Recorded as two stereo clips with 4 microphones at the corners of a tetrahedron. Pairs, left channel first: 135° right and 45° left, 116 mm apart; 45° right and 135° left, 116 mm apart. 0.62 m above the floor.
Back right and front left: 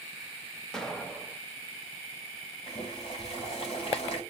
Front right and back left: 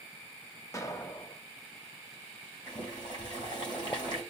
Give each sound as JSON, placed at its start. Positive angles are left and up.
{"t": 0.7, "sound": "an explosion", "azimuth_deg": -55, "distance_m": 0.9}
{"t": 2.7, "sound": "boiling", "azimuth_deg": -95, "distance_m": 3.5}